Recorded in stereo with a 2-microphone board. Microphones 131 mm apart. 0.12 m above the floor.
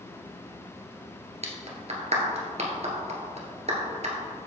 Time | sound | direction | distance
1.4 | a clap | 55° right (ahead or behind) | 1.4 m